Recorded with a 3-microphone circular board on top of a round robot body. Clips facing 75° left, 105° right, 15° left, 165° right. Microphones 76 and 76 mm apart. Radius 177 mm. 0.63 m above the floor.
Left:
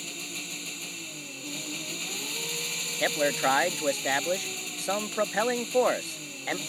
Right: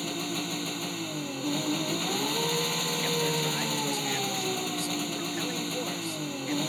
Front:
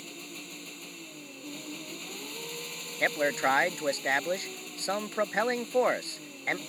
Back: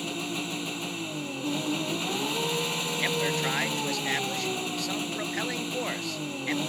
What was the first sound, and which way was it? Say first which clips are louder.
An engine running: right 9 dB, back 12 dB; 150° right.